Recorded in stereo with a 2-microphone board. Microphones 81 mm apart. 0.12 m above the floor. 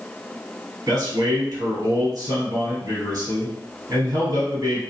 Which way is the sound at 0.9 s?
40° right (ahead or behind).